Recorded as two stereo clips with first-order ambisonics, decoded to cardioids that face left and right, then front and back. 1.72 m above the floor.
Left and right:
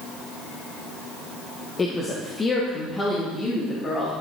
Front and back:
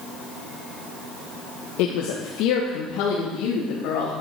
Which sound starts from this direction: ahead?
A woman speaking, at 1.8 s.